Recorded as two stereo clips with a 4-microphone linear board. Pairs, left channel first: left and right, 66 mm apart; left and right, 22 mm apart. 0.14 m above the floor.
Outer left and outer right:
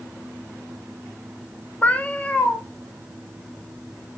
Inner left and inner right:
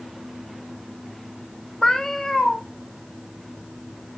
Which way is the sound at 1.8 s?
25° left (ahead or behind).